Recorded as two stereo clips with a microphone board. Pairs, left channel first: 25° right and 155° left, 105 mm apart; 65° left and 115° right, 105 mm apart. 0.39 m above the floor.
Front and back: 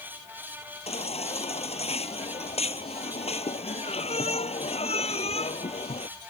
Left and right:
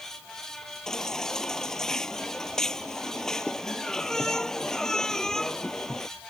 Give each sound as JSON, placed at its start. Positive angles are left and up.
{"t": 0.9, "sound": "a baby crying", "azimuth_deg": -15}